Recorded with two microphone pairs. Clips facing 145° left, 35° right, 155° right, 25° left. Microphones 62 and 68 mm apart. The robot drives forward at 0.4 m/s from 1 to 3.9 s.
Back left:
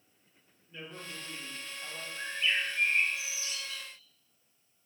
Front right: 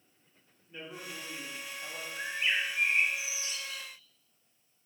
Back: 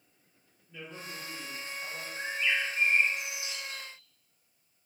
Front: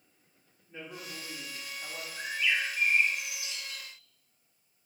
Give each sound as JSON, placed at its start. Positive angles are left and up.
{"t": 0.7, "sound": "a man speaking", "azimuth_deg": 20, "distance_m": 1.5}
{"t": 2.2, "sound": "a bird", "azimuth_deg": -70, "distance_m": 1.0}